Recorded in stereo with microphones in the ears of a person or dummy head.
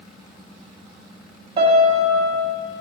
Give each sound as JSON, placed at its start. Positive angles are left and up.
{"t": 1.6, "sound": "a piano", "side_deg": -30, "distance_m": 2.5}